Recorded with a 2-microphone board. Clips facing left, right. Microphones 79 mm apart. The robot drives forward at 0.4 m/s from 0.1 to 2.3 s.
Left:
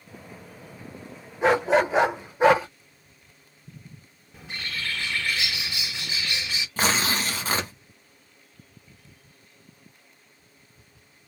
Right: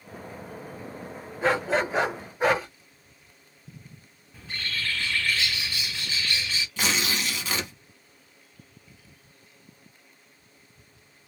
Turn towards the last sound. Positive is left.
turn(degrees=40)  # may be behind; listen again after turning